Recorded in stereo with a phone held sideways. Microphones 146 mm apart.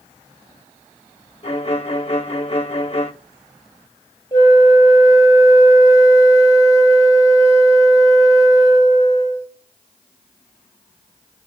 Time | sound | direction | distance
1.4 | a violin | 45° left (ahead or behind) | 0.8 m
4.3 | a flute | 25° left (ahead or behind) | 1.0 m